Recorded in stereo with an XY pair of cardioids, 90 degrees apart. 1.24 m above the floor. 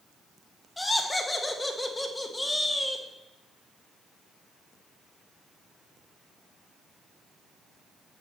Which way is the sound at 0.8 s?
20° left.